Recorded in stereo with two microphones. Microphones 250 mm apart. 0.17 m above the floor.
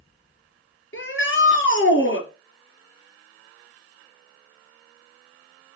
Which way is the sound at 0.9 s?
45° left (ahead or behind).